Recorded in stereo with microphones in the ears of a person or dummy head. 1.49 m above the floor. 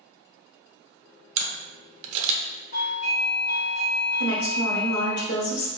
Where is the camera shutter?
40° right (ahead or behind), 0.9 m.